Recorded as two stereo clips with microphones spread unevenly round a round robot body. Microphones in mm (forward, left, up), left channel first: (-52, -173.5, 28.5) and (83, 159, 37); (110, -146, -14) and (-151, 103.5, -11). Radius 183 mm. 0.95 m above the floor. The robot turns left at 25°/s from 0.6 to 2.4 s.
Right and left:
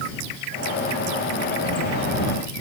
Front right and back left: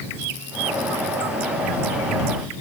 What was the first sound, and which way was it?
Only background noise.